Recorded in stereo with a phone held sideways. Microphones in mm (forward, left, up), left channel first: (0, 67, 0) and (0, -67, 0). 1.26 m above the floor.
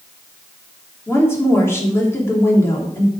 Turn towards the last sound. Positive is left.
turn(degrees=20)  # may be behind; listen again after turning